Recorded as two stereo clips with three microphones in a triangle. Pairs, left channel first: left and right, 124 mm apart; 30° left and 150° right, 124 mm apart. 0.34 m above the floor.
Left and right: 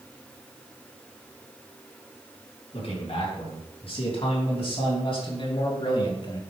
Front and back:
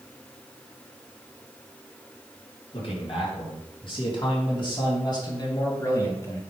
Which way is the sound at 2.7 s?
65° left.